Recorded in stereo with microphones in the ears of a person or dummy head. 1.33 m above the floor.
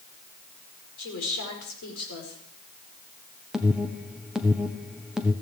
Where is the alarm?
Centre (ahead or behind), 1.1 m.